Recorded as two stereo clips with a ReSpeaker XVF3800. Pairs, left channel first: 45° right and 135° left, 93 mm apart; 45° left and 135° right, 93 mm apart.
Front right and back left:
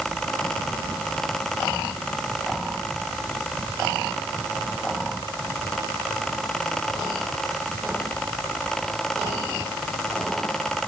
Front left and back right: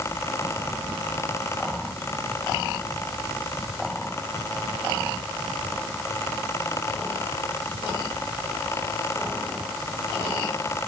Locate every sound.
Only background noise.